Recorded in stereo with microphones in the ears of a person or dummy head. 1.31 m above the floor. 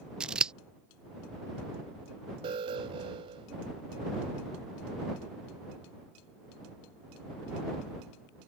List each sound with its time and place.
0.2 s scissors: 10° right (ahead or behind)
2.4 s an alarm: 35° right (ahead or behind)